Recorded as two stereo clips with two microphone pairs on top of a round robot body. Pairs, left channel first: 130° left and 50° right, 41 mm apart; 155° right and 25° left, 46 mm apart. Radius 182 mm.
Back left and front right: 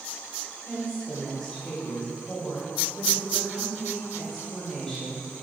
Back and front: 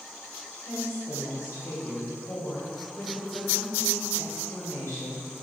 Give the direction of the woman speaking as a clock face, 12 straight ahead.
5 o'clock.